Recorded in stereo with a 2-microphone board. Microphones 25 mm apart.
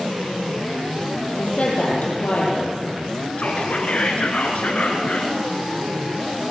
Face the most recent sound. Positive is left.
turn(degrees=55)  # may be behind; listen again after turning